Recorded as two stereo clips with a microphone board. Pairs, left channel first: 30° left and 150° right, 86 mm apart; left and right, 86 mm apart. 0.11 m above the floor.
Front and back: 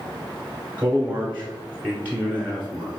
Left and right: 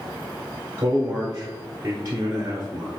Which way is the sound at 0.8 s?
105° right.